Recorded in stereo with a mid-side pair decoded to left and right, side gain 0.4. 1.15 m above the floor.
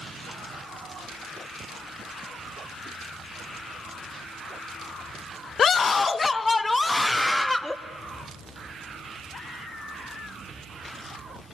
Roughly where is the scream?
Ahead left.